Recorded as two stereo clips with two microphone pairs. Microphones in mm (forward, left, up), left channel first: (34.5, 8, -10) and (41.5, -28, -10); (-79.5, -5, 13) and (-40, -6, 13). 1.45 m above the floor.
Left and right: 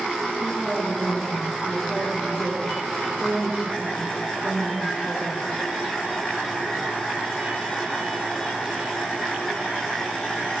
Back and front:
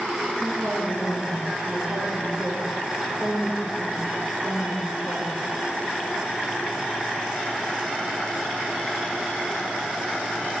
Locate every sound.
0.4 s a woman speaking: 5° right, 6 m